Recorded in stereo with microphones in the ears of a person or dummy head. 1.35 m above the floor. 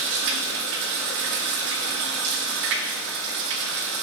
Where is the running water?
55° right (ahead or behind), 0.9 m.